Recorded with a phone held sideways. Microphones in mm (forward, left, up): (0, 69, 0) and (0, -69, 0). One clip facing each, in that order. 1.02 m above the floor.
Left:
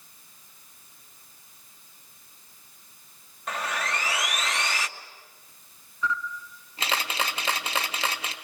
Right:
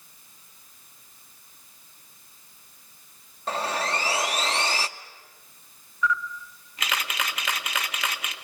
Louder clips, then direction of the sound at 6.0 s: Right 3 dB; 30° left (ahead or behind).